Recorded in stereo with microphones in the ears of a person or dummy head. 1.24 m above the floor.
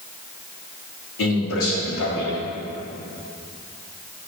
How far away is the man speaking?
About 3 m.